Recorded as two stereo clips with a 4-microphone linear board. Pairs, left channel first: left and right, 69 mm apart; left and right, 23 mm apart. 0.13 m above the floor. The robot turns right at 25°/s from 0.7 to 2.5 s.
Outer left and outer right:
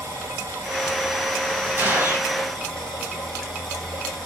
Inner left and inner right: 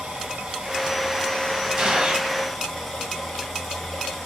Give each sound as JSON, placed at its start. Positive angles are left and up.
{"t": 0.0, "sound": "running water", "azimuth_deg": -40, "distance_m": 3.0}
{"t": 1.8, "sound": "a gunshot", "side_deg": -25, "distance_m": 4.5}